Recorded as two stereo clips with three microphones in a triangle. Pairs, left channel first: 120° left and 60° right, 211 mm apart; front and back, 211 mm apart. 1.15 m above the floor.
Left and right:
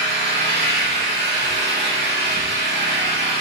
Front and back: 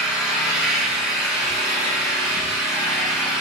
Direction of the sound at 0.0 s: 95° right.